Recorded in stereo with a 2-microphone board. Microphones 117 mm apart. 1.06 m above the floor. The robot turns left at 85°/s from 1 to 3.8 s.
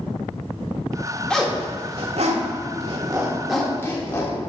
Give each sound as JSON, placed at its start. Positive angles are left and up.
{"t": 1.3, "sound": "a zipper", "side_deg": 10, "distance_m": 1.2}